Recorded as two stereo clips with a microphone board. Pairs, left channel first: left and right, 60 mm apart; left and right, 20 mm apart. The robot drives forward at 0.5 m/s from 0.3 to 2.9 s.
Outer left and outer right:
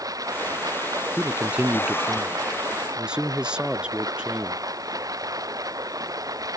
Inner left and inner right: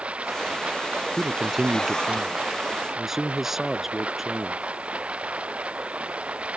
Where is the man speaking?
25° right (ahead or behind); by 4.6 s 15° right (ahead or behind).